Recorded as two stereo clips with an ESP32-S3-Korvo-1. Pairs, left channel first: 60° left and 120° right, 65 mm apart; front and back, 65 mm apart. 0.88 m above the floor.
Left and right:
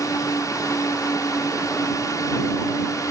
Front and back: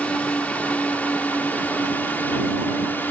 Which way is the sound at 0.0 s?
65° left.